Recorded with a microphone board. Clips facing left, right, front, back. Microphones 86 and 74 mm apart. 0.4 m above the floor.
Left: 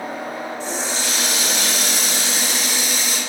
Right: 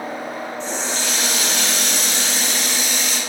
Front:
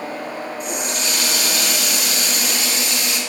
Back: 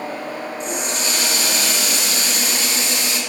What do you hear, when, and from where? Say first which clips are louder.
0.6 s a running tap: right 1 dB, back 1 dB; 170° left, 0.6 m